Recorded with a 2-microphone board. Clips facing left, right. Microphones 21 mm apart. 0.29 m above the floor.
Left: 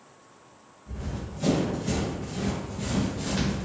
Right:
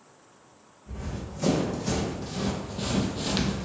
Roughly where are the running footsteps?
Right.